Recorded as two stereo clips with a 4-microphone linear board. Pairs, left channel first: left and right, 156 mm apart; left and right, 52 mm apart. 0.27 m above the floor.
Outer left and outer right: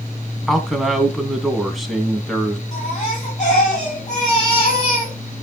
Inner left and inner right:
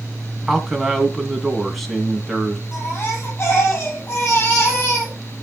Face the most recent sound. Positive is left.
turn(degrees=50)  # may be behind; listen again after turning